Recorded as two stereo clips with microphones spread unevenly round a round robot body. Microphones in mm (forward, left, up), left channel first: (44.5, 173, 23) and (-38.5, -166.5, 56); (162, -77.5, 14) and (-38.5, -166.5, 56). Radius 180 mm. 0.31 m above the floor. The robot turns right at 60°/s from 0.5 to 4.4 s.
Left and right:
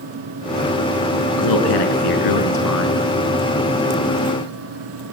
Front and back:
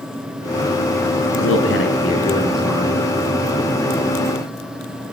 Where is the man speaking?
40° left, 5 m; by 3.0 s 140° left, 5 m.